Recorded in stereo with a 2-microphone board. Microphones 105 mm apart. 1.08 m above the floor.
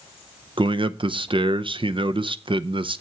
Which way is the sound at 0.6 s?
55° right (ahead or behind).